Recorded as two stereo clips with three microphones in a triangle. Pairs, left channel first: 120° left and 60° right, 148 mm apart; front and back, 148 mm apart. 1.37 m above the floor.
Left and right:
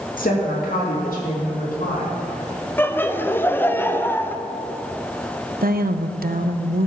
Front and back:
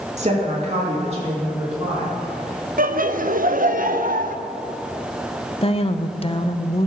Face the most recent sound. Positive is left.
turn(degrees=-50)